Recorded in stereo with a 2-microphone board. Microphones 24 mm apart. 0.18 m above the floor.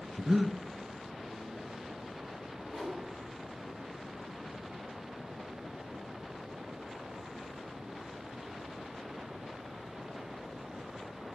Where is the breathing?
25° right (ahead or behind), 0.6 m.